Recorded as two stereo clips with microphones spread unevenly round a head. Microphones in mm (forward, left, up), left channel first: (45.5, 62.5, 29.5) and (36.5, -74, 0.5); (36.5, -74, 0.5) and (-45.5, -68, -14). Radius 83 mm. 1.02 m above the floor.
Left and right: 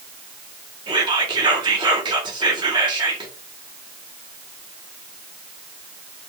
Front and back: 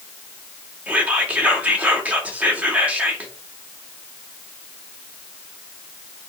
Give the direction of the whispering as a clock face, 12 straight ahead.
4 o'clock.